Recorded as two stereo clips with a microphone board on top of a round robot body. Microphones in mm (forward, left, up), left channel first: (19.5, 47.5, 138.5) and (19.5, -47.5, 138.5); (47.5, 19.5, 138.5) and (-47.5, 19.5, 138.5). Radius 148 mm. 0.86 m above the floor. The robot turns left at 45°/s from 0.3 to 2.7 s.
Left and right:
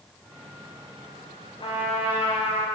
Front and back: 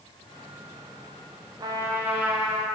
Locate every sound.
1.6 s a trumpet: 130° left, 0.5 m; by 2.6 s 85° left, 0.5 m